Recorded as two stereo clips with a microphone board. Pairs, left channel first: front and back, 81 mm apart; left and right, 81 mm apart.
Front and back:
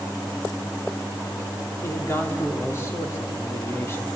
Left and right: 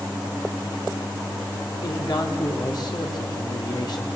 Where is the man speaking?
60° left, 3.5 m.